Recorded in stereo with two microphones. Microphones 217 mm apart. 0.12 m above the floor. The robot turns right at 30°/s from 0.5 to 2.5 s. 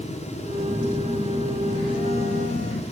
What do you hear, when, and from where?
0.6 s a phone buzzing: 15° right, 0.7 m; by 2.8 s 45° left, 0.7 m